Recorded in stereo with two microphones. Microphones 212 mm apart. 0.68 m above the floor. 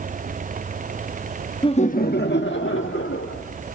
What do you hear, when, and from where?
1.6 s laughter: 20° left (ahead or behind), 0.7 m; by 3.4 s 75° left (ahead or behind), 2.0 m